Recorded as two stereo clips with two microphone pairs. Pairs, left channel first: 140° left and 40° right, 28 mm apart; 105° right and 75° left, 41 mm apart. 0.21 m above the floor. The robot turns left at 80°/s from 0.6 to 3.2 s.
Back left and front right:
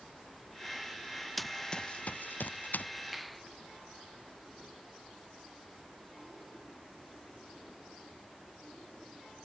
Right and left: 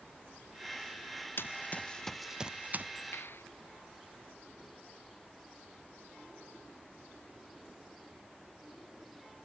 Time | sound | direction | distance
1.4 | running footsteps | 130° right | ?
3.1 | a clap | 125° right | ?